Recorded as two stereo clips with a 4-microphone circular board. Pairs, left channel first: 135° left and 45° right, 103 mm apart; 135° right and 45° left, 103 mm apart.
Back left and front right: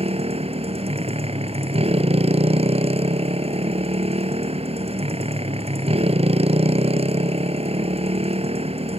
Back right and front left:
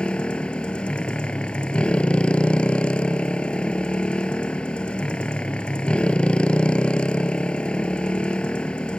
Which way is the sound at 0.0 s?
55° right.